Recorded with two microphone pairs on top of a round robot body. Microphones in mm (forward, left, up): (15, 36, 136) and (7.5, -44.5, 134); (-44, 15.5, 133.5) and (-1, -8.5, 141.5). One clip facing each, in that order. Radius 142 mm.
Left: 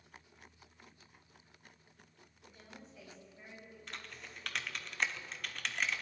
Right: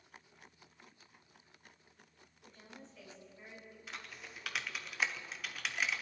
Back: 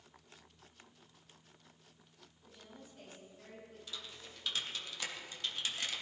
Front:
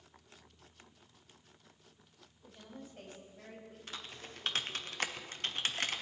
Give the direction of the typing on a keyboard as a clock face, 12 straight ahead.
12 o'clock.